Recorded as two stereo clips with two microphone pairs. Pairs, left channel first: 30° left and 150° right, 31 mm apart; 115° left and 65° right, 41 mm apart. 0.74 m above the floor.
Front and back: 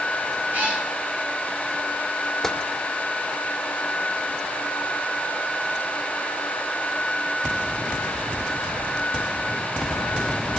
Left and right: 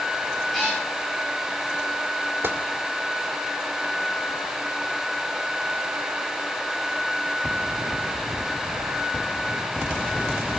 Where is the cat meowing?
160° right, 9 m.